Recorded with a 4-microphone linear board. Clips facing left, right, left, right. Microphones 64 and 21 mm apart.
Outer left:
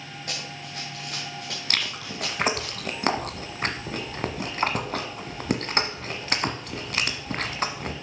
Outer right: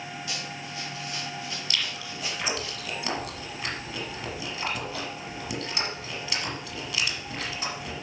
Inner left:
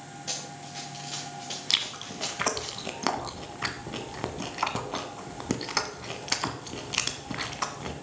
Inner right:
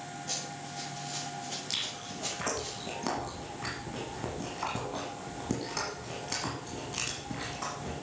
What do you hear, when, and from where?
0.3 s running footsteps: 45° left (ahead or behind), 3 m; by 2.7 s 65° left (ahead or behind), 4 m
1.7 s chewing: 45° left (ahead or behind), 1.3 m